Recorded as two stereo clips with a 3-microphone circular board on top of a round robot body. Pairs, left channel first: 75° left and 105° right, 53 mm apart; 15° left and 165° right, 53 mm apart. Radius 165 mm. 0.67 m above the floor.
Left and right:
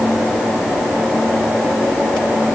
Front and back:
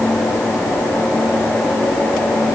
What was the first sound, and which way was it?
Only background noise.